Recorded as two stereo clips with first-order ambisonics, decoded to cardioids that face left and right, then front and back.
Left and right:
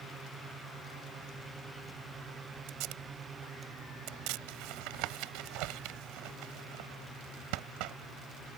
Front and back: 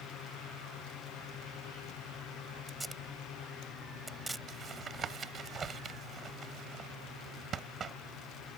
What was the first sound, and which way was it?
Tape being pulled, 95° right.